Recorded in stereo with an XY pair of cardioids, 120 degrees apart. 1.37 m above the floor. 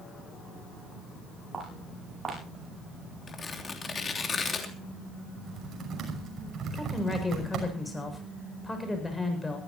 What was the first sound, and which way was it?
Footsteps, 20° right.